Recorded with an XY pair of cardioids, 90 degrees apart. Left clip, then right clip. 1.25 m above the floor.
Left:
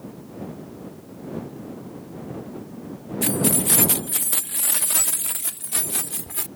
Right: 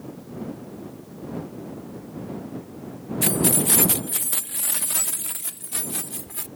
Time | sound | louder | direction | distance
3.2 | keys jangling | even | 20° right | ?